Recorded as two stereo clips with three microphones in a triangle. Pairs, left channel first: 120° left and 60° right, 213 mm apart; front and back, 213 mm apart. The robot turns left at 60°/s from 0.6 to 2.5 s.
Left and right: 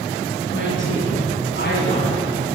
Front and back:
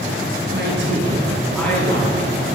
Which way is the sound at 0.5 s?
145° left.